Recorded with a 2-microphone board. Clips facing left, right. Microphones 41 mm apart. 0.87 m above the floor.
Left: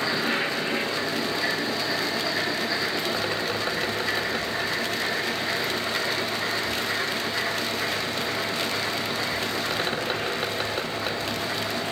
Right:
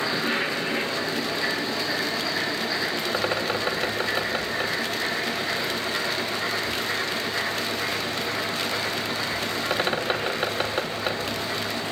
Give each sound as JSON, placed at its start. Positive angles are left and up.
{"t": 3.1, "sound": "a bird", "side_deg": -20, "distance_m": 2.5}